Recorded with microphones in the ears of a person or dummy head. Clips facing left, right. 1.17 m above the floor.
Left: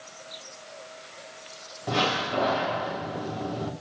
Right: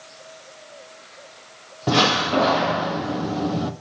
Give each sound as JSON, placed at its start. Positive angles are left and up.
{"t": 1.9, "sound": "a door slam", "side_deg": -65, "distance_m": 1.3}